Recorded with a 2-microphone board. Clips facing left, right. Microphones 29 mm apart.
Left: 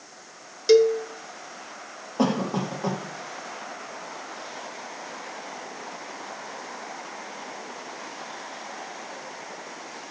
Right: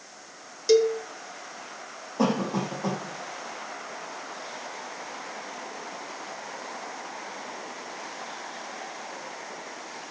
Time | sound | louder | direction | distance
0.7 | a cowbell | left 3 dB | 20° left (ahead or behind) | 1.0 m
2.2 | a cough | left 1 dB | 25° left (ahead or behind) | 7 m